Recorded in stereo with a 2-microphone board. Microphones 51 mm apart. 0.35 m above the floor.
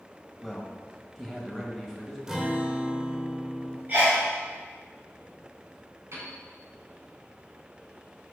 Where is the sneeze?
40° right (ahead or behind), 2 m.